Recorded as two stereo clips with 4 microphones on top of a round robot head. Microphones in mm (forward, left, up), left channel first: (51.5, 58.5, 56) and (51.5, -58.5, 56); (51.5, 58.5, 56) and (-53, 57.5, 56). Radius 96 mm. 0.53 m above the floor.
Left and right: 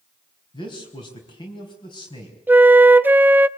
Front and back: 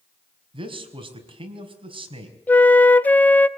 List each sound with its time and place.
0.5 s a man speaking: 145° left, 5 m
2.5 s a flute: 45° right, 0.7 m